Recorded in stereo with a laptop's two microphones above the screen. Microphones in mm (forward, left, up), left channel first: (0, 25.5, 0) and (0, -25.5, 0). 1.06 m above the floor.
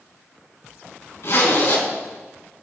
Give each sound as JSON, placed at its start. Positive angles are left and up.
{"t": 1.2, "sound": "a zipper", "side_deg": 60, "distance_m": 4.0}